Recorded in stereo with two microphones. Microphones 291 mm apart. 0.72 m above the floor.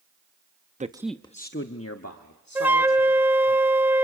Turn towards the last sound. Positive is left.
turn(degrees=-5)  # may be behind; listen again after turning